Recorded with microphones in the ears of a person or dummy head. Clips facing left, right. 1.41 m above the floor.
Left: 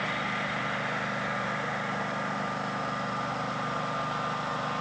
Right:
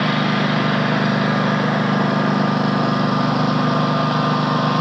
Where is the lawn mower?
85° right.